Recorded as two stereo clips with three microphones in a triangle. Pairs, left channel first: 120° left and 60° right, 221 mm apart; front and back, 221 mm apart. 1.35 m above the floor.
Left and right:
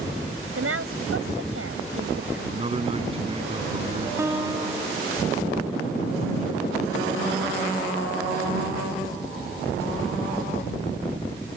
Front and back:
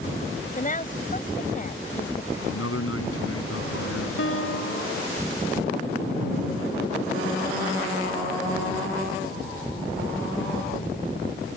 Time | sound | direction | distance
0.6 | a woman speaking | 55° right | ?
2.5 | a man speaking | 5° left | ?
4.2 | a guitar | 15° left | ?